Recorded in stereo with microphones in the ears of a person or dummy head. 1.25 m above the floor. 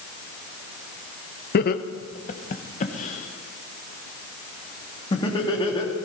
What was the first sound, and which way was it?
Laughter, 50° left (ahead or behind).